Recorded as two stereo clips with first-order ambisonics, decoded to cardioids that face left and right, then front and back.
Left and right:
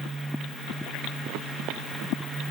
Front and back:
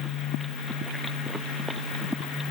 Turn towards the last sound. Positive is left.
No sound to turn to.